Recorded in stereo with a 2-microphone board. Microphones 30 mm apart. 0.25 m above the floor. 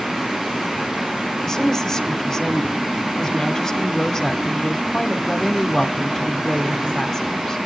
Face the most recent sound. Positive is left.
turn(degrees=15)  # may be behind; listen again after turning